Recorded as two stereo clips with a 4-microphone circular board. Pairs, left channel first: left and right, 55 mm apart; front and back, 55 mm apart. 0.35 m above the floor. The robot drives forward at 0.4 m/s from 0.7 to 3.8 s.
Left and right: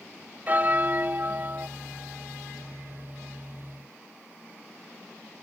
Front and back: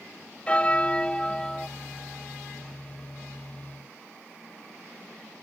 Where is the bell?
55° right; by 1.7 s 80° right.